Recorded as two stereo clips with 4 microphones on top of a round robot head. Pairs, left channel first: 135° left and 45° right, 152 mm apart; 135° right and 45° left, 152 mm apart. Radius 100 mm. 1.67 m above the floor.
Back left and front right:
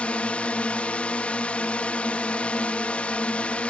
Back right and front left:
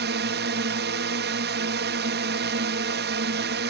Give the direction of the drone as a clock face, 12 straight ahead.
10 o'clock.